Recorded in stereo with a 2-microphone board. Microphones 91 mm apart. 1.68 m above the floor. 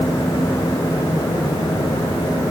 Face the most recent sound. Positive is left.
No sound to turn to.